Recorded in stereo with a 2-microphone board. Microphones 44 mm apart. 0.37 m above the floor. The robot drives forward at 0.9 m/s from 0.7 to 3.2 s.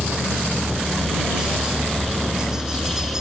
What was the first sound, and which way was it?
A helicopter, 15° right (ahead or behind).